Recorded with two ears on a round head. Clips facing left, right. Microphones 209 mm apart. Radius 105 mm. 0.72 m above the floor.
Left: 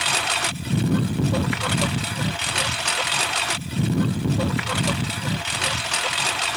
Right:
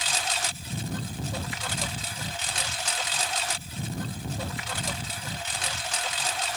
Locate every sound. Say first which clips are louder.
0.0 s a lawn mower: left 5 dB; 55° left (ahead or behind); by 6.6 s 60° left (ahead or behind)